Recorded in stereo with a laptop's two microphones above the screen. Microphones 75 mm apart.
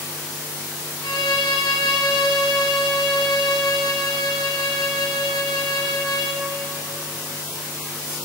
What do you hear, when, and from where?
1.0 s a violin: 70° left (ahead or behind), 1.4 m